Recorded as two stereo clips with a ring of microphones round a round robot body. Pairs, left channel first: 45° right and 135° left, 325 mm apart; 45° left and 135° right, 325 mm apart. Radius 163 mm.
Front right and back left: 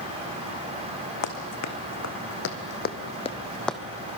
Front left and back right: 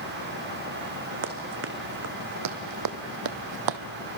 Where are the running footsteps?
80° right, 2 m; by 3.8 s 135° right, 1.2 m.